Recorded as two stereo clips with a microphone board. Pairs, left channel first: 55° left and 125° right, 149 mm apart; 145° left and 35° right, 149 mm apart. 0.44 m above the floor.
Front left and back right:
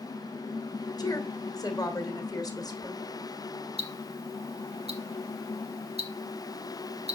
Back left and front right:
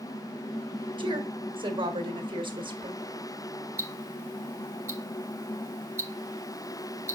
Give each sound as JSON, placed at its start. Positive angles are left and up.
{"t": 1.0, "sound": "a woman speaking", "azimuth_deg": 0, "distance_m": 1.4}
{"t": 3.8, "sound": "ticking", "azimuth_deg": -105, "distance_m": 1.6}